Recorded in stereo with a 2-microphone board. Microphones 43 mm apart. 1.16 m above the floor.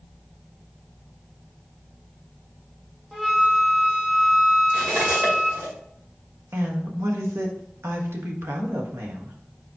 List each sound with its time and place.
3.1 s a flute: 5° right (ahead or behind), 1.1 m
4.7 s cutlery clinking: 60° right (ahead or behind), 2 m
6.5 s a woman speaking: 85° right, 1.2 m